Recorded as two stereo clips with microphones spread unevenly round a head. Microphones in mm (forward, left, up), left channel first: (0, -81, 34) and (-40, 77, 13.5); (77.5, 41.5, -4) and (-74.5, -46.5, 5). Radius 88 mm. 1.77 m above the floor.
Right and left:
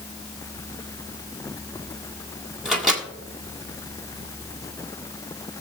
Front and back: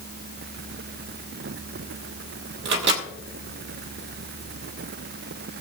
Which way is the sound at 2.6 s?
165° right.